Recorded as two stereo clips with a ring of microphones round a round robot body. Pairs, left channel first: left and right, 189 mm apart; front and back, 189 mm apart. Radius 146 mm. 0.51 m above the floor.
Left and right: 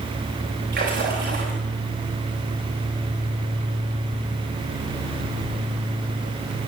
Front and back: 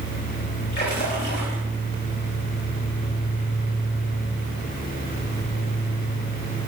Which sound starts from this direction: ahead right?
A splash, at 0.7 s.